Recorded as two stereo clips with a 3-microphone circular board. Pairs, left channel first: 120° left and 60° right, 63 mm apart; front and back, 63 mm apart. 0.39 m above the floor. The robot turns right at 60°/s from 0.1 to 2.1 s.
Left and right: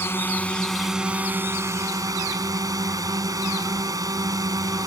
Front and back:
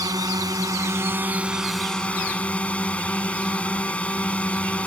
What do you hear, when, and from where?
0.0 s a drone: 170° left; by 4.9 s 70° right